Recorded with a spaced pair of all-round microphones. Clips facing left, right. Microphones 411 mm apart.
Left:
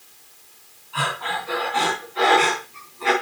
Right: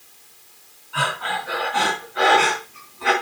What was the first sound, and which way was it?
Breathing, 30° right (ahead or behind).